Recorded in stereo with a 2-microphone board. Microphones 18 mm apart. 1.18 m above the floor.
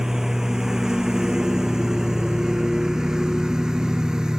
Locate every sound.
0.0 s a lawn mower: 30° right (ahead or behind); by 4.4 s 45° right (ahead or behind)